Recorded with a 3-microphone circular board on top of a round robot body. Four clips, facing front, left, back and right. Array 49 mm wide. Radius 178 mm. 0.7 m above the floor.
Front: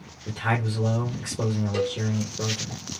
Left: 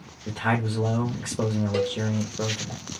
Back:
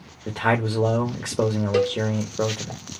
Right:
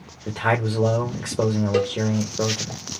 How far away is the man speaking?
About 1.8 m.